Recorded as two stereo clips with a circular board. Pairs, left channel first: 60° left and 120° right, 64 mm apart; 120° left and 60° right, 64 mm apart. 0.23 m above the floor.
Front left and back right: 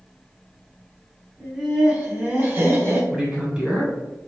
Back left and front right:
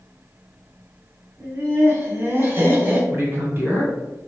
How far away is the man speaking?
About 1.7 m.